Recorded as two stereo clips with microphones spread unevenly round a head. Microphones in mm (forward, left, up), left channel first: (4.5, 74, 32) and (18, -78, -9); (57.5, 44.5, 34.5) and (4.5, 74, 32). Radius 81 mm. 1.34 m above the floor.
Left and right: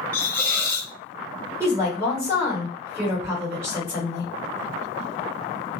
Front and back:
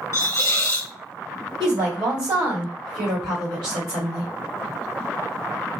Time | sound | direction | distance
0.1 | a hiss | 20° left | 0.7 m
1.6 | a woman speaking | 160° right | 1.6 m